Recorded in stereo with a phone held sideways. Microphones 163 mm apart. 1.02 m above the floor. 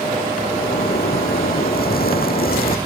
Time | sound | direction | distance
0.5 | a zipper | 70° left (ahead or behind) | ?